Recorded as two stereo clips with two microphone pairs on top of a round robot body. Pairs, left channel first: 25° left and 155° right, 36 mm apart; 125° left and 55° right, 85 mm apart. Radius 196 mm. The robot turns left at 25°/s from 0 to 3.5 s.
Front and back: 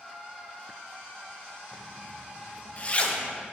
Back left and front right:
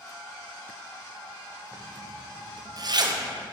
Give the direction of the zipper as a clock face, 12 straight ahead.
12 o'clock.